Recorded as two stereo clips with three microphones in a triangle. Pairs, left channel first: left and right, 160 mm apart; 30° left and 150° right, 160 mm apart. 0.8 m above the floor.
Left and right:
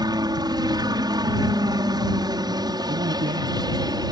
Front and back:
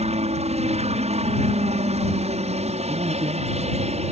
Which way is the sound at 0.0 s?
140° right.